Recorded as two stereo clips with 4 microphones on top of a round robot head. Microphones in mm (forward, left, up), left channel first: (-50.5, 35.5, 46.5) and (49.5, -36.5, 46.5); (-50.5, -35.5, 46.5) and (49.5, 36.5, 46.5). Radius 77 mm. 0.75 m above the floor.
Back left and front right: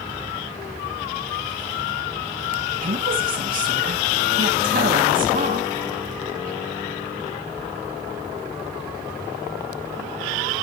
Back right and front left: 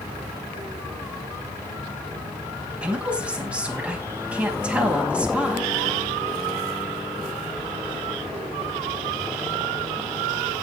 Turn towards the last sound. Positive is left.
turn(degrees=-45)